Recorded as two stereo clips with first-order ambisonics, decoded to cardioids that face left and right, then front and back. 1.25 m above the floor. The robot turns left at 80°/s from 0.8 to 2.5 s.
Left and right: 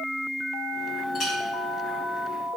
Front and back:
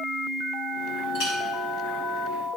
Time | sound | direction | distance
1.1 | a clink | 25° left | 3 m